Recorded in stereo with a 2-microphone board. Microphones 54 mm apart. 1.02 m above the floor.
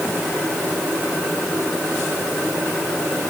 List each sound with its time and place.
Only background noise.